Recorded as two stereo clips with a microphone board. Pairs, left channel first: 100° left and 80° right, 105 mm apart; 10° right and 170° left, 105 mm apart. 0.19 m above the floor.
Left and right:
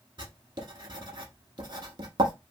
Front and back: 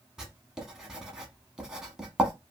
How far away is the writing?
About 1.0 m.